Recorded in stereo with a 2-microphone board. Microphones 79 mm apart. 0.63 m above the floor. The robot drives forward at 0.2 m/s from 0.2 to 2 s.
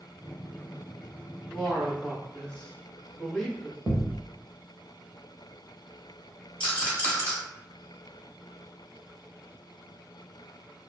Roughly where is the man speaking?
Centre.